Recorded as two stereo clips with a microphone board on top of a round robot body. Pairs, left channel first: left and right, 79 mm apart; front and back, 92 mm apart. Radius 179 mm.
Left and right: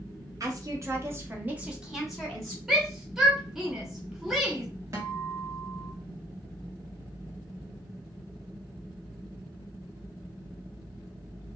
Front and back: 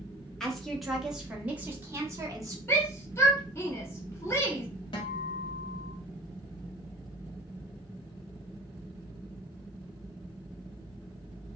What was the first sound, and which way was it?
A woman speaking, 80° right.